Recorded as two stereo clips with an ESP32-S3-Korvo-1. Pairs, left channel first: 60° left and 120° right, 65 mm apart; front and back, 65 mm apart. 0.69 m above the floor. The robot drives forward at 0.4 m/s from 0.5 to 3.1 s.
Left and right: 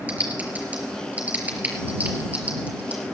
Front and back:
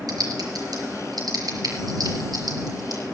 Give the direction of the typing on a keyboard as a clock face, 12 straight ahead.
6 o'clock.